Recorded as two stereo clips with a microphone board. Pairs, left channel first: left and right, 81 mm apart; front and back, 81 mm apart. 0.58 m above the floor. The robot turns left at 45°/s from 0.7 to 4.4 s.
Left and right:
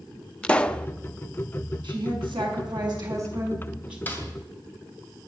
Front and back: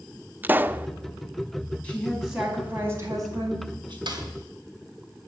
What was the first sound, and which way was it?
A pop, 150° left.